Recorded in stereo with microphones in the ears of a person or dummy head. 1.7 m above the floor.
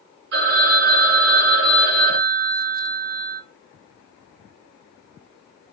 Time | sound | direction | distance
0.3 | a phone ringing | 55° right (ahead or behind) | 1.4 m